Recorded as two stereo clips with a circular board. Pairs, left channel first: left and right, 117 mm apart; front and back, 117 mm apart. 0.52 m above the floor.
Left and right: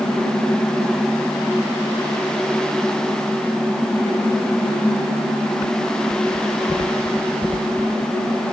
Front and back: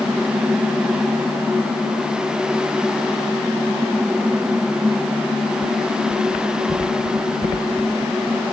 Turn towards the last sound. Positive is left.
No sound to turn to.